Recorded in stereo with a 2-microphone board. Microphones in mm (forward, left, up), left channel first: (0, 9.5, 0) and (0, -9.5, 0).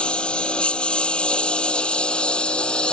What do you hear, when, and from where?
0.0 s a lawn mower: 80° left; by 2.9 s 70° left (ahead or behind)